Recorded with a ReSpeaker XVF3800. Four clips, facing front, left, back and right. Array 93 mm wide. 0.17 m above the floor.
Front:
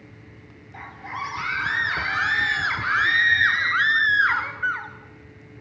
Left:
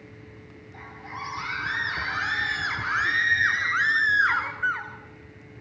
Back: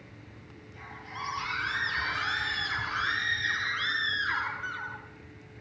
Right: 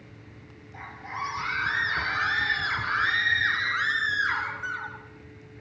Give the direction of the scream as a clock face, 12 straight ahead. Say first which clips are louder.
Right 3 dB, front 8 dB; 12 o'clock.